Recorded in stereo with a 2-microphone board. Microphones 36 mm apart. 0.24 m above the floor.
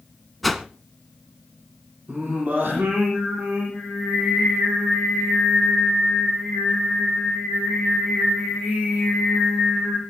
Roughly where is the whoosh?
Centre.